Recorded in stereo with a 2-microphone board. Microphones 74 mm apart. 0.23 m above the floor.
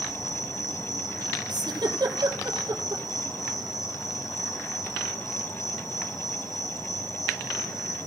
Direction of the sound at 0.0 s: 45° left (ahead or behind).